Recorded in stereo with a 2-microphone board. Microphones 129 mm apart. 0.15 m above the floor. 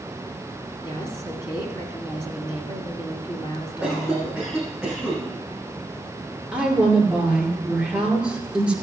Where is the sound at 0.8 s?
40° left (ahead or behind), 2 m.